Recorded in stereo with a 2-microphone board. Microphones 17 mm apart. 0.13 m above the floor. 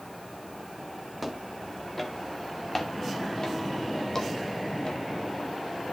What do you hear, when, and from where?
1.2 s footsteps: 10° left (ahead or behind), 2.5 m; by 5.0 s 50° left (ahead or behind), 3.5 m